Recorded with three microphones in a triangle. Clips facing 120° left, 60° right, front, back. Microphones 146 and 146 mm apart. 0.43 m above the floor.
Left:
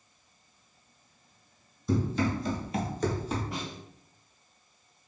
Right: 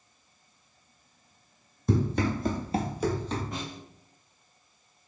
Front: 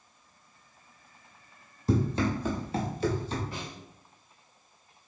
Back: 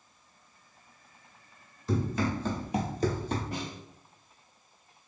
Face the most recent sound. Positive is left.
turn(degrees=-155)